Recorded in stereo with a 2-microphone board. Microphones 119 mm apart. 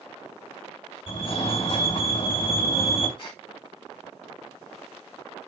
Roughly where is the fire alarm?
Left.